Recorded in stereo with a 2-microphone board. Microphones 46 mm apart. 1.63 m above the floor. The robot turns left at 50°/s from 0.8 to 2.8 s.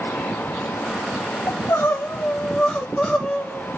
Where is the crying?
80° left, 3 m; by 3.7 s 10° left, 3 m.